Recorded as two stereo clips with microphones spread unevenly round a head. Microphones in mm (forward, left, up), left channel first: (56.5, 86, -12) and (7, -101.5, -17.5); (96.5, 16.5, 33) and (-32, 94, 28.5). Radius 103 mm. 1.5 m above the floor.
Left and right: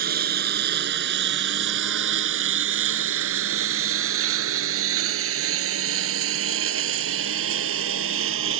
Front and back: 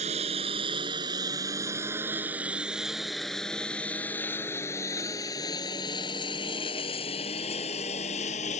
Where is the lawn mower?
150° right; by 8.6 s 90° right.